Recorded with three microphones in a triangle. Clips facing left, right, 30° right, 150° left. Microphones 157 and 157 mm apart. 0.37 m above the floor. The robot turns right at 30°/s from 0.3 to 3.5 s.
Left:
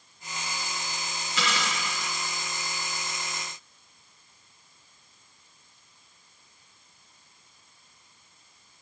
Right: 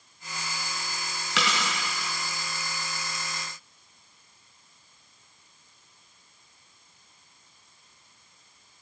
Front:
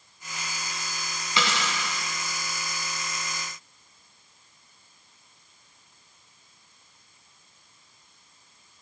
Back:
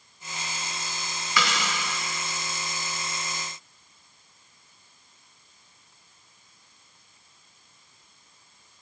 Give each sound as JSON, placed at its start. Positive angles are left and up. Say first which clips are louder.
{"t": 1.4, "sound": "a dropped coin", "louder": "right 1 dB, even", "azimuth_deg": -100, "distance_m": 2.5}